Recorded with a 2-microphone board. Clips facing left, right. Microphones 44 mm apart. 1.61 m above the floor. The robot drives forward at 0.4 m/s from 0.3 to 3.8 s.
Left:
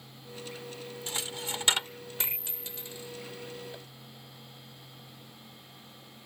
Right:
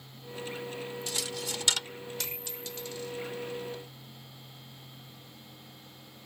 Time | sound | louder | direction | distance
1.1 | a dropped coin | left 3 dB | 30° left (ahead or behind) | ?